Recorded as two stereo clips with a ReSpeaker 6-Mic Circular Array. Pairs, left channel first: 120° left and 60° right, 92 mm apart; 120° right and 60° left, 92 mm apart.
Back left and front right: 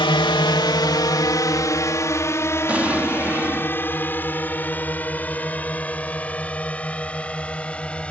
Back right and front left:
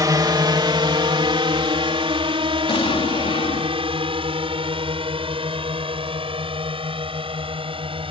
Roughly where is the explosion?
Behind right.